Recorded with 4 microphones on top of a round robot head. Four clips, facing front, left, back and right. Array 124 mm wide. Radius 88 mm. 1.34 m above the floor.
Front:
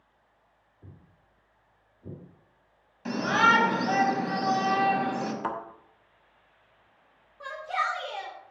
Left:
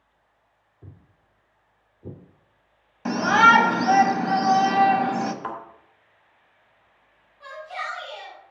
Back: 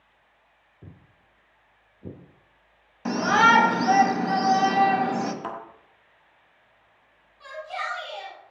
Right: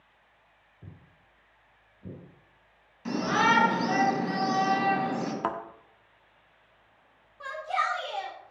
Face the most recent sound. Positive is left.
turn(degrees=-60)